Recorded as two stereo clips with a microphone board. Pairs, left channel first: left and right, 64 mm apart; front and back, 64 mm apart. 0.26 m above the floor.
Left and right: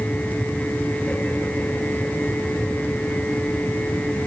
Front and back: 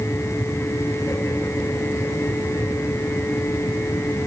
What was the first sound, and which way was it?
Only background noise.